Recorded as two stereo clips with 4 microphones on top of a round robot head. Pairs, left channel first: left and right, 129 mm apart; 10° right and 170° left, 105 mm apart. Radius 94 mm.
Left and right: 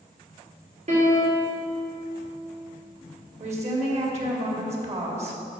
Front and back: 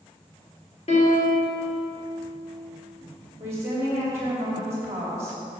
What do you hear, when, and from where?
0.9 s a piano: 45° right, 3 m
3.4 s a woman speaking: 125° right, 2.5 m